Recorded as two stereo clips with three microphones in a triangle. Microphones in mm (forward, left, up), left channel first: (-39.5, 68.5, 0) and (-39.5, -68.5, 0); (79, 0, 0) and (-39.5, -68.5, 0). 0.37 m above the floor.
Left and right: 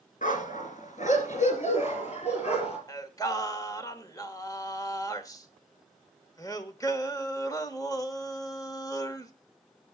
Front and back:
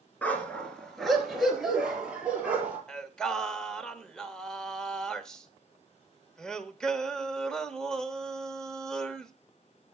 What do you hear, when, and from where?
0.2 s a dog barking: 110° left, 1.9 m; by 2.8 s 130° left, 3.5 m
2.9 s singing: 110° left, 1.1 m